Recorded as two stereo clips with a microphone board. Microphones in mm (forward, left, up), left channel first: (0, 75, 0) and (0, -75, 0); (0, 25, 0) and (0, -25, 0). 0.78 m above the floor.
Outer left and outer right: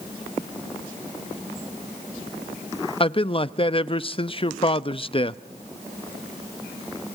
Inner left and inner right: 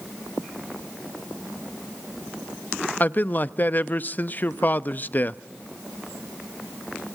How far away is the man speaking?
About 0.5 m.